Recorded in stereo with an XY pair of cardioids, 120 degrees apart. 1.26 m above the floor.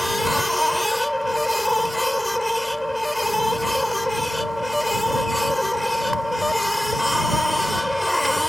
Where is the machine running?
5° left.